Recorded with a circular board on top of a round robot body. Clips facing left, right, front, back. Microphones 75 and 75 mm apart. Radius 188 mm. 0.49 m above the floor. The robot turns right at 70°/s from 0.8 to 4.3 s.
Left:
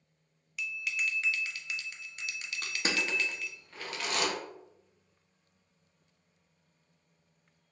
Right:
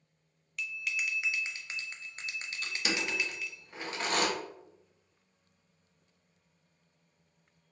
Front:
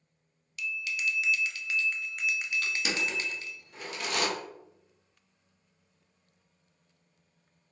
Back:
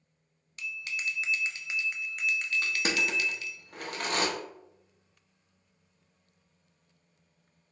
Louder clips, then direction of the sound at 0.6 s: Left 1 dB, front 3 dB; 175° left.